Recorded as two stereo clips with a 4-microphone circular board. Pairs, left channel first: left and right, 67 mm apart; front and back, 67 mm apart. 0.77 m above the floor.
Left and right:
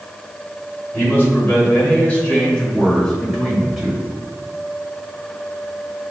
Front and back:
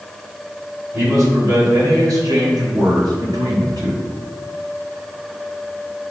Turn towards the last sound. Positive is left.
turn(degrees=180)